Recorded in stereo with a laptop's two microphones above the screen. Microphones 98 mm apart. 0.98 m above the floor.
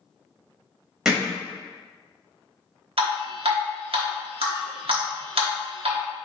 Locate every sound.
1.1 s hammering: 5° right (ahead or behind), 0.9 m
3.0 s dripping: 75° right (ahead or behind), 0.9 m